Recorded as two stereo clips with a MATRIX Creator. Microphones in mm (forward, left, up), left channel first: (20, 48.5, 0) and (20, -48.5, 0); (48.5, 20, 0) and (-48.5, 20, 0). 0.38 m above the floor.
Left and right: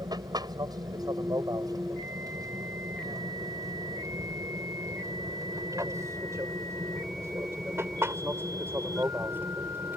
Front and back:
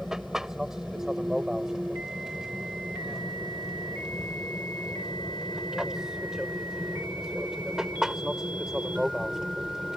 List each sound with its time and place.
0.0 s an aircraft: 95° right; by 10.0 s 105° right